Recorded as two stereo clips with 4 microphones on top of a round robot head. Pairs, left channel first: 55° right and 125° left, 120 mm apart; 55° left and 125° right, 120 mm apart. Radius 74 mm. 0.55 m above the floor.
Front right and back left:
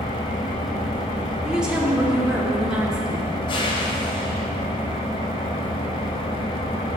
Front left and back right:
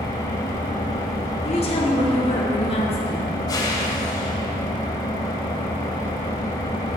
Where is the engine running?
5° right, 1.3 m.